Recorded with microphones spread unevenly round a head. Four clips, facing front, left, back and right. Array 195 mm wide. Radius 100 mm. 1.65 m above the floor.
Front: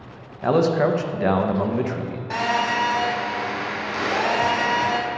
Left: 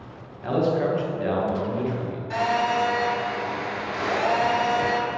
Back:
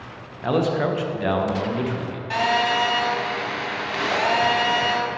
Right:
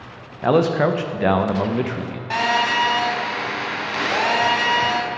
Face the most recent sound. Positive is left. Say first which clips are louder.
# right 2 dB, back 2 dB
turn(degrees=-95)